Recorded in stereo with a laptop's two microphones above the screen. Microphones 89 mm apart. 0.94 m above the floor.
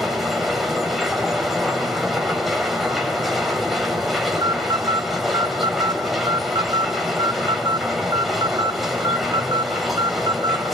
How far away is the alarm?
About 2 m.